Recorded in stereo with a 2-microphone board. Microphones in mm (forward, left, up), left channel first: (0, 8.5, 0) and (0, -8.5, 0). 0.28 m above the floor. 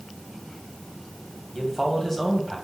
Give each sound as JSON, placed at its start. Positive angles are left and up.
{"t": 1.6, "sound": "a man speaking", "side_deg": 10, "distance_m": 2.0}